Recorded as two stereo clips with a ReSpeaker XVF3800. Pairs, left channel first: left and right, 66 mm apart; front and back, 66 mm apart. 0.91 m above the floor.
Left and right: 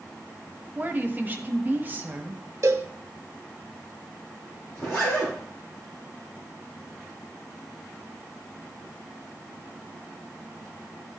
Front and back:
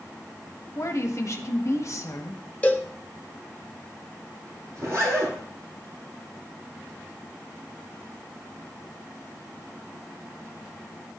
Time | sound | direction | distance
0.8 | a woman speaking | 30° right | 1.0 m
2.6 | a cowbell | 65° right | 0.9 m
4.8 | a zipper | 140° left | 3.5 m